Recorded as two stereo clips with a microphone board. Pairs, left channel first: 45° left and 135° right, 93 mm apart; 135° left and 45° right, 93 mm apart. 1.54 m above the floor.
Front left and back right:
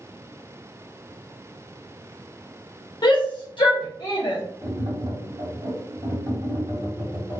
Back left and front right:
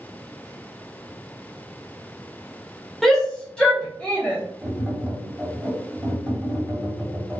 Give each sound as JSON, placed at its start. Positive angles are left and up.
{"t": 3.0, "sound": "a shout", "azimuth_deg": 50, "distance_m": 0.6}
{"t": 4.6, "sound": "tapping", "azimuth_deg": -125, "distance_m": 2.0}